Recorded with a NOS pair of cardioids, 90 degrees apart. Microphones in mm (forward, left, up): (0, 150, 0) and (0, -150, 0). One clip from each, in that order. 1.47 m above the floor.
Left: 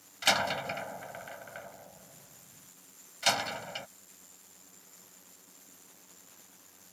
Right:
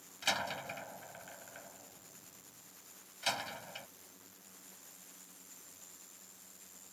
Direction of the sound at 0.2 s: 55° left.